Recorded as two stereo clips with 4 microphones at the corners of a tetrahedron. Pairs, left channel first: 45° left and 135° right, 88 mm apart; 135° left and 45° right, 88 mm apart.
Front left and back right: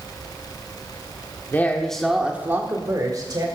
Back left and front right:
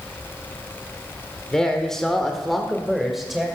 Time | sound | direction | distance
1.5 | a man speaking | 65° left | 1.3 m